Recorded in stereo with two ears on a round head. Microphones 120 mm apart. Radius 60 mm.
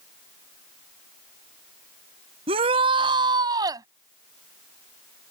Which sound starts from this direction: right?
A shout, at 2.5 s.